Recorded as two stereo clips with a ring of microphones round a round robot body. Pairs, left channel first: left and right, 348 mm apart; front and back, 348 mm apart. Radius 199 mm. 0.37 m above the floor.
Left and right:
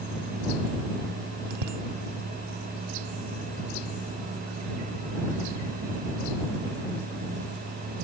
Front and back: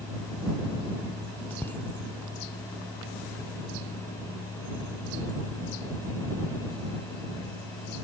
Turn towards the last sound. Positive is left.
turn(degrees=-85)